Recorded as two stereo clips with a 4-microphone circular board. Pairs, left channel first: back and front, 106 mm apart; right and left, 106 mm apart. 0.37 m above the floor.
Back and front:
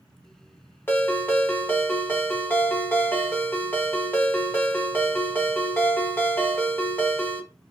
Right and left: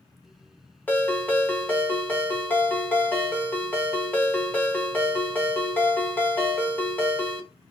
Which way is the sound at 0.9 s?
140° right.